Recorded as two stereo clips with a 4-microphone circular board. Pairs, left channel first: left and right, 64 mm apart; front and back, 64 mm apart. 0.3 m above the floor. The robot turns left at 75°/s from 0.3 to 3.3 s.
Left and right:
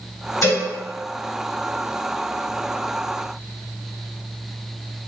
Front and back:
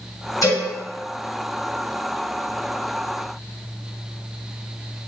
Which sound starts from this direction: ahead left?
A cowbell, at 0.4 s.